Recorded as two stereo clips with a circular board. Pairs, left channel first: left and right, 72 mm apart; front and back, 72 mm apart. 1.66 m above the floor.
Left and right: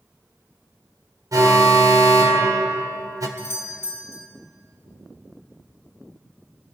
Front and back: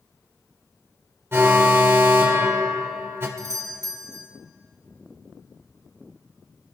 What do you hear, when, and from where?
1.3 s an alarm: 125° right, 1.5 m
3.4 s a doorbell: 145° left, 1.3 m